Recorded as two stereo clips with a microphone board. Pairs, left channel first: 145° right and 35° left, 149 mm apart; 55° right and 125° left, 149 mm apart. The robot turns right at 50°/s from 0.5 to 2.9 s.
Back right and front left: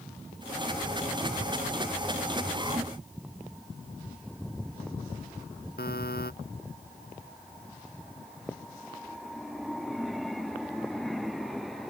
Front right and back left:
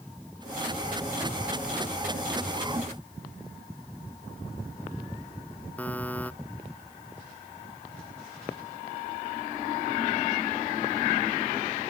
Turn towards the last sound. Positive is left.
turn(degrees=-135)